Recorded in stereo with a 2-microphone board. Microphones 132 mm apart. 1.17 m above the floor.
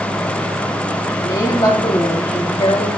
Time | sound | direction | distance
1.2 | a woman speaking | 30° left (ahead or behind) | 2.5 m